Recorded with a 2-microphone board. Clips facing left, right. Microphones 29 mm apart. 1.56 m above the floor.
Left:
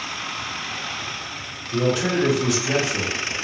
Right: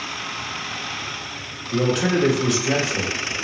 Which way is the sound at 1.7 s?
60° right (ahead or behind).